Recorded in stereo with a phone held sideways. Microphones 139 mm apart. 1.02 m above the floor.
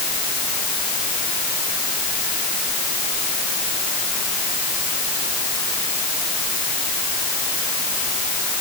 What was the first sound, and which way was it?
Only background noise.